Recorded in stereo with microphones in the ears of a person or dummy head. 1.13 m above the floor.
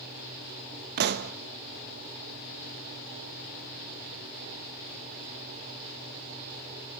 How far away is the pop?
About 0.8 m.